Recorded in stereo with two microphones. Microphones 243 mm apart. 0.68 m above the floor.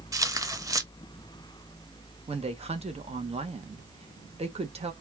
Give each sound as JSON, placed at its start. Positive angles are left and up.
{"t": 0.1, "sound": "tearing paper", "side_deg": -15, "distance_m": 0.6}
{"t": 2.3, "sound": "a woman speaking", "side_deg": -25, "distance_m": 0.7}